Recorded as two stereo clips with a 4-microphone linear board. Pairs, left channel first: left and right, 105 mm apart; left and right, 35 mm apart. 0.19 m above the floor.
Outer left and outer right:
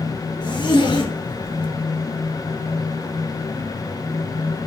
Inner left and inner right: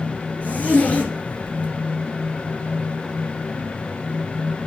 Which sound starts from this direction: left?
A zipper, at 0.4 s.